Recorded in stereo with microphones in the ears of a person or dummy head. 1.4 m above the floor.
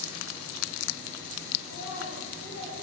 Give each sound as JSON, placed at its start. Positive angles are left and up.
{"t": 1.6, "sound": "a child speaking", "side_deg": 60, "distance_m": 9.0}